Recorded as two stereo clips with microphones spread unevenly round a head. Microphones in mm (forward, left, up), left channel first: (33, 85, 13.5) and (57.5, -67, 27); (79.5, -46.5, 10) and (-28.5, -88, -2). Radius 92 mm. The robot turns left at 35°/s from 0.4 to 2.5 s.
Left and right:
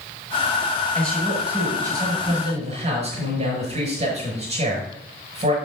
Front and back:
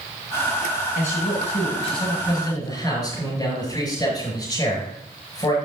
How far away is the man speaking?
About 6 m.